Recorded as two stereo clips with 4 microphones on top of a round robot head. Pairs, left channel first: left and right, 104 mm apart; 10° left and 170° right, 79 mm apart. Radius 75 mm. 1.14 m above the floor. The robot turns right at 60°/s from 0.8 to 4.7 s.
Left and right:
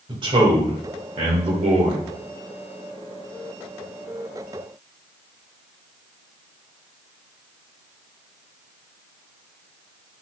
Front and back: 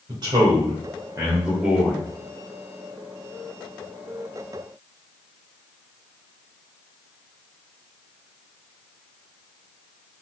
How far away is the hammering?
No hammering in this recording.